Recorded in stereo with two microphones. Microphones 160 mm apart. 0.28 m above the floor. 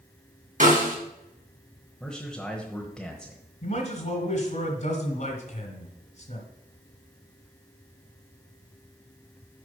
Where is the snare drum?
55° right (ahead or behind), 1.8 m.